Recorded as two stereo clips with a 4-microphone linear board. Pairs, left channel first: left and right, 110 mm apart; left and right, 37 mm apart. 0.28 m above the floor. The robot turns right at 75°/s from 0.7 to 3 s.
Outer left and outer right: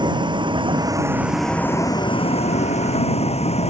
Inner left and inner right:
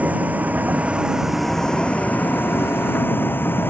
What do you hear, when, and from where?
0.0 s a vehicle: 45° right (ahead or behind); by 3.7 s 75° left (ahead or behind)